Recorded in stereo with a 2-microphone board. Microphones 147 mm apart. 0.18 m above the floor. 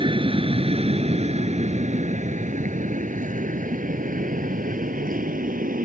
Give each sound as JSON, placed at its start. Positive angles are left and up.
{"t": 0.0, "sound": "an aircraft", "side_deg": -35}